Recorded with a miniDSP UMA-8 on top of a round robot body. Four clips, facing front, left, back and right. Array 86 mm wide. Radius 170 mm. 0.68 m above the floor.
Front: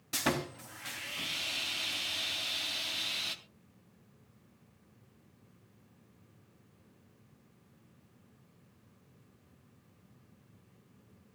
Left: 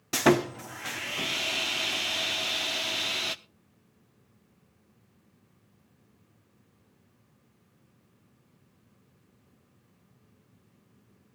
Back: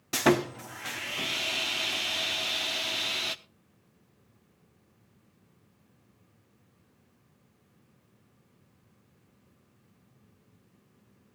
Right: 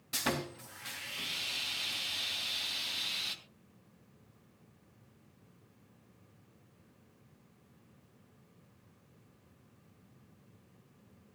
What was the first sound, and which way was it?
Sawing, 120° left.